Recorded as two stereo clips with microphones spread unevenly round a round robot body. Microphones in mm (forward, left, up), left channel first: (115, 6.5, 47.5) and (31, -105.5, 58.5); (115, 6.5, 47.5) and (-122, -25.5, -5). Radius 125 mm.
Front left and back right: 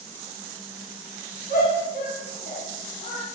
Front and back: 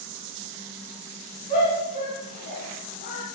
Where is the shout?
75° left, 4 m; by 3.2 s 60° left, 3.5 m.